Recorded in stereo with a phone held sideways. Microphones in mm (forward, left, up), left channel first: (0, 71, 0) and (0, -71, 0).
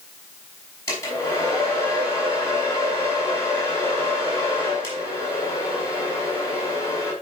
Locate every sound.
0.9 s a hair dryer: 20° left (ahead or behind), 5 m